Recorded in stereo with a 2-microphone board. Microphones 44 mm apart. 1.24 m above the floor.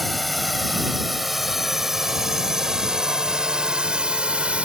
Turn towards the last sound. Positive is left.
turn(degrees=-25)  # may be behind; listen again after turning